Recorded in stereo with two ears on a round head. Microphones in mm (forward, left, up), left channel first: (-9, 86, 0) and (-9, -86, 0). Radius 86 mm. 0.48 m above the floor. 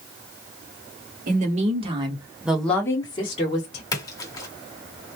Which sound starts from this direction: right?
A woman speaking, at 1.3 s.